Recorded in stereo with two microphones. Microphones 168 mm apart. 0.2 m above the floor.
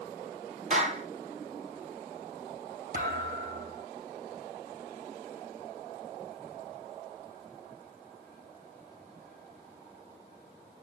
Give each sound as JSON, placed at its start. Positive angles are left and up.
{"t": 0.7, "sound": "a clap", "side_deg": -40, "distance_m": 4.0}
{"t": 2.9, "sound": "a thud", "side_deg": -50, "distance_m": 4.0}